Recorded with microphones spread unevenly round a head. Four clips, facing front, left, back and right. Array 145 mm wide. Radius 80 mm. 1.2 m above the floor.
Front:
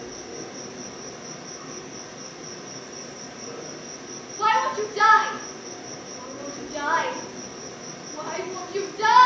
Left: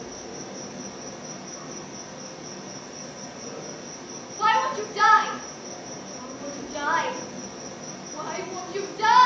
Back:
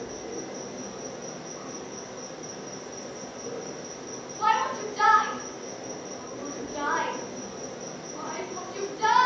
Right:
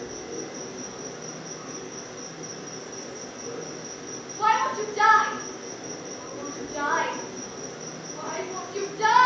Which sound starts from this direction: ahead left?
A shout, at 4.4 s.